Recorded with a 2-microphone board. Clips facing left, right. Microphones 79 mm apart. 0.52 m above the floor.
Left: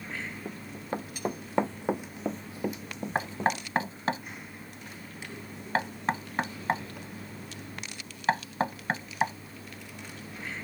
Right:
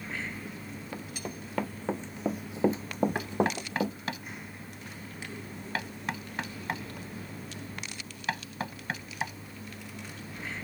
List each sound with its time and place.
0.5 s running footsteps: 45° left (ahead or behind); by 4.0 s 75° right (ahead or behind)
3.1 s knocking: 35° left (ahead or behind)